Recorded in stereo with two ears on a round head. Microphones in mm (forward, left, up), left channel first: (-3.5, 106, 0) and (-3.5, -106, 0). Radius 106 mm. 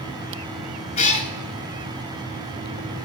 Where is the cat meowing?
30° left (ahead or behind), 0.9 m.